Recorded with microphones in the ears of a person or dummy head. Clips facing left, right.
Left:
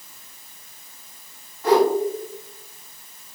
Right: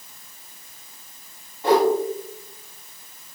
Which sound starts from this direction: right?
A whoosh, at 1.6 s.